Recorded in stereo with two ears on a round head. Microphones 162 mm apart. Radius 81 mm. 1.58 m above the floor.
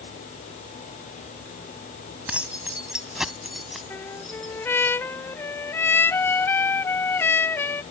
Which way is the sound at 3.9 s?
15° left (ahead or behind).